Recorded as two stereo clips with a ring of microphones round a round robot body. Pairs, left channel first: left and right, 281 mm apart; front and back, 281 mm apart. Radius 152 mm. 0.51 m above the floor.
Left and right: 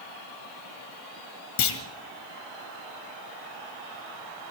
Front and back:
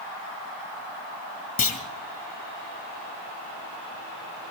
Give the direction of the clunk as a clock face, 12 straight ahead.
10 o'clock.